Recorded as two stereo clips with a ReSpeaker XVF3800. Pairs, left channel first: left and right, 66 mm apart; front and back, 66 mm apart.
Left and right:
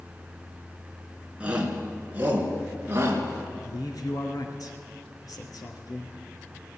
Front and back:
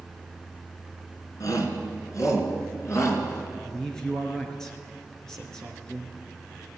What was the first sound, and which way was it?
A shout, 20° right.